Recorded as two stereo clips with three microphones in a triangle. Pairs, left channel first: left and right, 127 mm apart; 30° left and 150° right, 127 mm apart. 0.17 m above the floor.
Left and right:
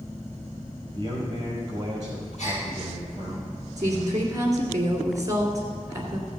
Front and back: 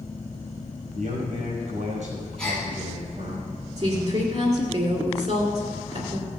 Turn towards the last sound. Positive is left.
turn(degrees=-145)